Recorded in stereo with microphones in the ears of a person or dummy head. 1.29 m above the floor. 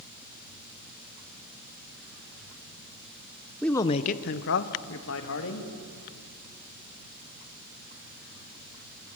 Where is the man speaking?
Centre (ahead or behind), 0.6 m; by 5.7 s 80° left, 2.5 m.